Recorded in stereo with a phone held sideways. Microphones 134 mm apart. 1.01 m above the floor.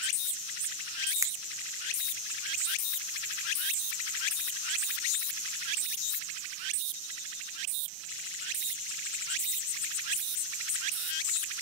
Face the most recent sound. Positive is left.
turn(degrees=-25)  # may be behind; listen again after turning